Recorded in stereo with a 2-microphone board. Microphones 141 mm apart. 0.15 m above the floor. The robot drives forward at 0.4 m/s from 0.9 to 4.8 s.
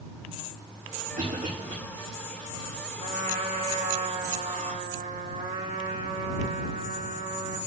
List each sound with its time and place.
1.2 s a cough: 80° right, 8.5 m
3.0 s a trumpet: 85° right, 9 m; by 7.6 s 80° right, 9 m